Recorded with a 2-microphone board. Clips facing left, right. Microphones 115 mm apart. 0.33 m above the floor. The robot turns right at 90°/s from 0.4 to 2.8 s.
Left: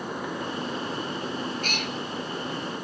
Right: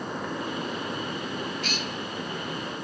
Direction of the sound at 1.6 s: 45° left (ahead or behind).